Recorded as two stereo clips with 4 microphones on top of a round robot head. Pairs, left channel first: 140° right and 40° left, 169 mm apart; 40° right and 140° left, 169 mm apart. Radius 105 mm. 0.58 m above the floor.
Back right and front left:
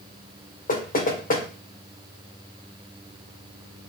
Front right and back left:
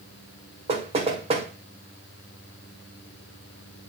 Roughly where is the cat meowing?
I don't hear a cat meowing.